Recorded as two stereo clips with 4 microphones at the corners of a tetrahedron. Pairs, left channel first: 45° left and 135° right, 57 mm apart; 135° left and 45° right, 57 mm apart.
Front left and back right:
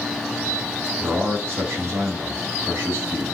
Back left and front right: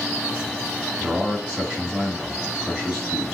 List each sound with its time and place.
1.0 s a man speaking: 115° right, 1.4 m